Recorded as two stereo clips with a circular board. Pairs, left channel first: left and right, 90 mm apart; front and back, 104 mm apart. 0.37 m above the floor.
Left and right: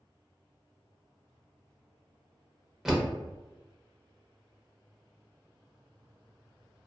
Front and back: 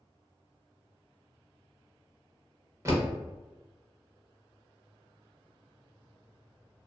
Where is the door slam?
170° right, 0.6 m.